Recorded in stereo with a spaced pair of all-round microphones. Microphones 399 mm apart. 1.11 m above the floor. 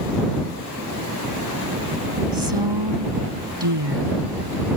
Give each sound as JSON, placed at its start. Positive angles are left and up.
{"t": 2.3, "sound": "a woman speaking", "side_deg": -85}